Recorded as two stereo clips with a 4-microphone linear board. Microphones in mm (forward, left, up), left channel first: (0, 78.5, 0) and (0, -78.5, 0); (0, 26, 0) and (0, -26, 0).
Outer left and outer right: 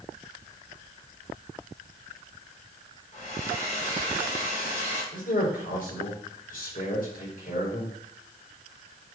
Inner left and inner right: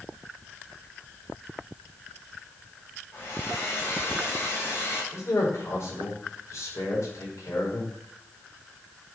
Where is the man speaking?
65° left (ahead or behind), 4.5 m.